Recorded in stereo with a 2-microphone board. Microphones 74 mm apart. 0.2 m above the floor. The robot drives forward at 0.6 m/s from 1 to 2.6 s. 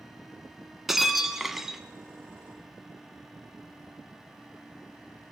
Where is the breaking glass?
5° right (ahead or behind), 1.1 m.